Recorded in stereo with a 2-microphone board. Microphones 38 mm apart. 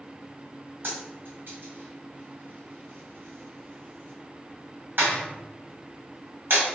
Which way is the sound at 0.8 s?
65° right (ahead or behind).